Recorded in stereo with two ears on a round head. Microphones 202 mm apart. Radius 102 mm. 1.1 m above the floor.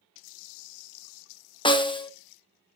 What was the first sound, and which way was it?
A snare drum, 20° left (ahead or behind).